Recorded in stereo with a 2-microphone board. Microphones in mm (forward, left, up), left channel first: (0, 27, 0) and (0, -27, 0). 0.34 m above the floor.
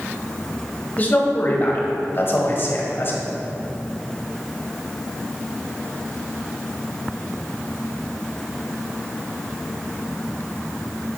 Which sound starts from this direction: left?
A man speaking, at 1.0 s.